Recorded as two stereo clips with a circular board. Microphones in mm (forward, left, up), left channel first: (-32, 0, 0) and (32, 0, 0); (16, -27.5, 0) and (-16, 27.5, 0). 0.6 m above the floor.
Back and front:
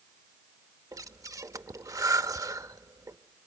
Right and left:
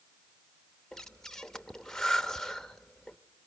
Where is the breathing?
20° left, 0.7 m.